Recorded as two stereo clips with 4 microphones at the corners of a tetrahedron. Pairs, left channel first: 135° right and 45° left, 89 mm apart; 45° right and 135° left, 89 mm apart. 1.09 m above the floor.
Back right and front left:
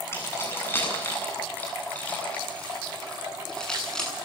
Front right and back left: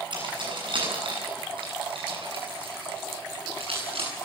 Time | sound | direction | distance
0.1 | keys jangling | 160° left | 8 m